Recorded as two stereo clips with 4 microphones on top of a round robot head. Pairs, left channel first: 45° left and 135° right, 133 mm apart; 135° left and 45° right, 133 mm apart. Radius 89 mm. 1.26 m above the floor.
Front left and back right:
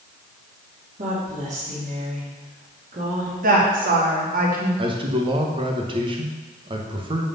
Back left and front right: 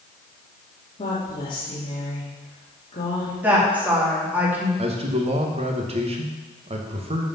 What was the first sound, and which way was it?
A woman speaking, 170° right.